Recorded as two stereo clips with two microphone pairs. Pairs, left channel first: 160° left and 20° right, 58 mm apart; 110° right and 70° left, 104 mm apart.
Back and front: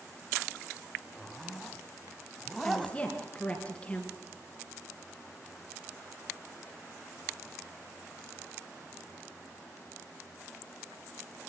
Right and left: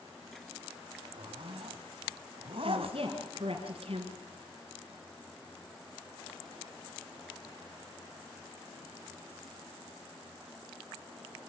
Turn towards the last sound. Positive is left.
turn(degrees=90)